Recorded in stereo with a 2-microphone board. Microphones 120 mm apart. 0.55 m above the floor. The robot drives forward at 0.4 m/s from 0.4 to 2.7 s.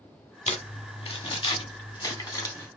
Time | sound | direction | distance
0.5 | crumpling | 70° left (ahead or behind) | 0.7 m